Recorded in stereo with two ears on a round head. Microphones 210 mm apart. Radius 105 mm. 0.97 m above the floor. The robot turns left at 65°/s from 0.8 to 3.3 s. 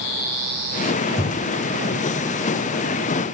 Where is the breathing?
20° left (ahead or behind), 1.2 m; by 1.4 s 5° left (ahead or behind), 1.2 m.